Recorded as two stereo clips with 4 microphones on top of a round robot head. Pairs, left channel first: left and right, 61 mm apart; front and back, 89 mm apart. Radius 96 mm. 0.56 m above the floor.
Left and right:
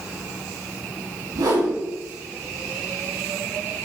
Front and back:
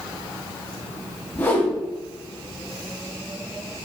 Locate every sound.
1.4 s a whoosh: 70° right, 4.5 m